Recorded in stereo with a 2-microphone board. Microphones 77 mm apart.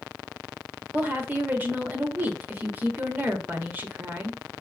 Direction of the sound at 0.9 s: 20° right (ahead or behind).